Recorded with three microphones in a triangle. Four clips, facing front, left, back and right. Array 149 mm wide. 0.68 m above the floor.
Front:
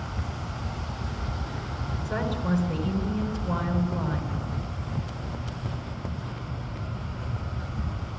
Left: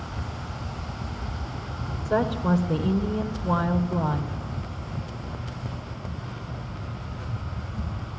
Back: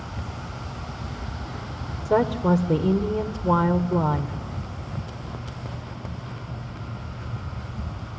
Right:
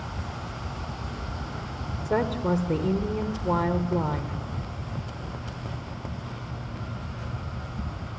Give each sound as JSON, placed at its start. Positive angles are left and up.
{"t": 2.0, "sound": "a woman speaking", "azimuth_deg": -165, "distance_m": 1.8}